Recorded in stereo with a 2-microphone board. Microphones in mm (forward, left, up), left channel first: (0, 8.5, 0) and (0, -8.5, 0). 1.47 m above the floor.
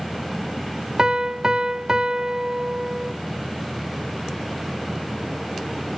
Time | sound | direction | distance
1.0 | a piano | 50° right (ahead or behind) | 0.6 m